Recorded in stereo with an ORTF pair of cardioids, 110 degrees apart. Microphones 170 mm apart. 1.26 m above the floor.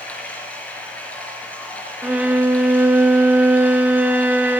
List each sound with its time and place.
0.0 s running water: 10° left, 5.5 m
2.0 s a violin: 10° right, 0.9 m